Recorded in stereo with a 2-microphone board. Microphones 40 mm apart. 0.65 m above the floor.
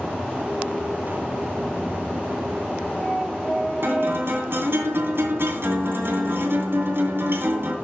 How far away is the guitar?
About 2.5 m.